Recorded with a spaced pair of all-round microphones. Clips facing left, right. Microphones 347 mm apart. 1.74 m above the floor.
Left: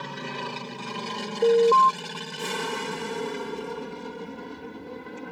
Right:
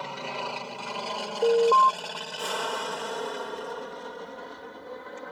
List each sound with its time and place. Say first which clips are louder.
0.0 s an aircraft: left 1 dB; 25° left (ahead or behind); by 5.3 s 40° left (ahead or behind)
1.4 s an alarm: left 3 dB; 25° left (ahead or behind)